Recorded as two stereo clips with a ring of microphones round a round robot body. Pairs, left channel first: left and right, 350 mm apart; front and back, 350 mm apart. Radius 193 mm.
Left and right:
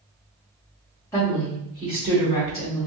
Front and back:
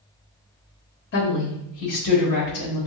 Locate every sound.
1.1 s a woman speaking: 20° left, 0.9 m; by 2.9 s 20° right, 1.4 m